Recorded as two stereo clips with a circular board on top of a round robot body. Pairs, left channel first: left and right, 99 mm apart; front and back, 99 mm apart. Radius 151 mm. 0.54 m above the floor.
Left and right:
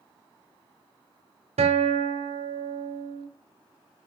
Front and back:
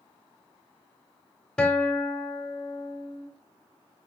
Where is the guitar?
80° right, 0.5 m.